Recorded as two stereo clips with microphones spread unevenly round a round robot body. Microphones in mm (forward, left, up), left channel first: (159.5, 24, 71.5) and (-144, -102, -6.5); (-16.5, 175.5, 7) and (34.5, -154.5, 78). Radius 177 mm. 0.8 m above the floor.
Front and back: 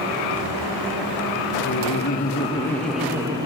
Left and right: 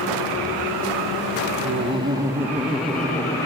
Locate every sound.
1.6 s laughter: 5° right, 0.9 m; by 3.5 s 155° left, 1.0 m